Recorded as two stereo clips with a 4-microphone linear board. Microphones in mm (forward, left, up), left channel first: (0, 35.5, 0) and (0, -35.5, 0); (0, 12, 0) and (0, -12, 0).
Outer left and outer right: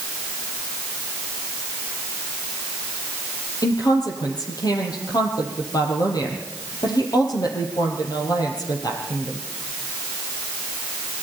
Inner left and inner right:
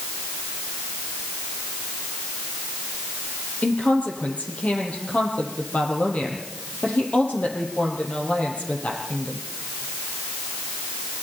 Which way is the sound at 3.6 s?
65° left (ahead or behind).